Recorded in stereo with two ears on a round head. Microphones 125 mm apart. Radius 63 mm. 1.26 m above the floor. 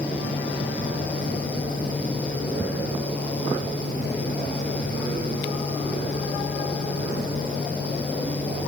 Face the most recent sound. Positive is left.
No sound to turn to.